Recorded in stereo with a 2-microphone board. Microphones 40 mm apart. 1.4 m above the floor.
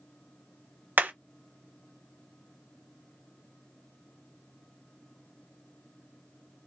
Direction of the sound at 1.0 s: 50° right (ahead or behind).